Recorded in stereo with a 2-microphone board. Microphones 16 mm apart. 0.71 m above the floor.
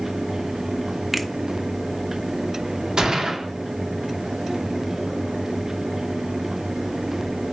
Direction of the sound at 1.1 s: 10° right (ahead or behind).